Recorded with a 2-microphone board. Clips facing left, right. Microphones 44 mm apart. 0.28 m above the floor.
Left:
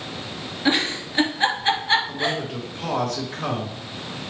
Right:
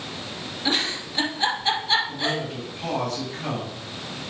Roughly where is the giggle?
Left.